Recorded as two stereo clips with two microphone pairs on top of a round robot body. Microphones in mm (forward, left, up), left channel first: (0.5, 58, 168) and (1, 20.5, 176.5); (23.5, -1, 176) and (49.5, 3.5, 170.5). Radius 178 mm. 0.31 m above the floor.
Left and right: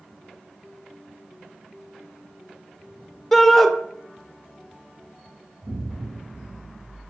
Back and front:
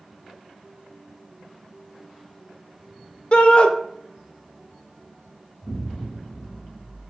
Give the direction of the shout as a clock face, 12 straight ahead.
7 o'clock.